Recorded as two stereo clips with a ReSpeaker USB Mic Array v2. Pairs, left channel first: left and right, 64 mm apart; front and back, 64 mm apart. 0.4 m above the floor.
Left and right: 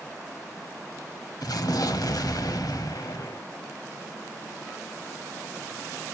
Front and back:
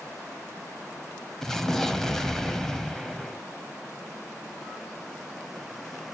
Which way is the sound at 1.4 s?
85° left.